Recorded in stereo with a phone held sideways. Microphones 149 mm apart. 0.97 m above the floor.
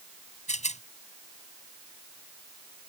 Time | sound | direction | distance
0.5 | a rattle | 50° left (ahead or behind) | ?